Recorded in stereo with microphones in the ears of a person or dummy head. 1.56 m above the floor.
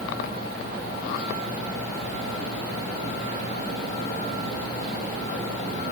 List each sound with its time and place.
Only background noise.